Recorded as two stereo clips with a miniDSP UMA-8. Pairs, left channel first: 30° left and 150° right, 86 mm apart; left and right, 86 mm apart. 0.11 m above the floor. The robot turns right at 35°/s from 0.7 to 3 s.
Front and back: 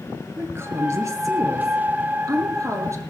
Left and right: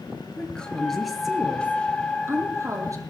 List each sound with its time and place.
0.4 s a woman speaking: 165° left, 1.8 m; by 3.0 s 115° right, 1.8 m